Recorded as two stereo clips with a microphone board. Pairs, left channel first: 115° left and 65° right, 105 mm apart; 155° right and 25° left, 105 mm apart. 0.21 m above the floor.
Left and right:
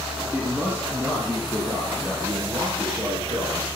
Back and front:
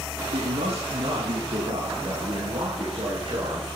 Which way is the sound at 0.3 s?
10° left.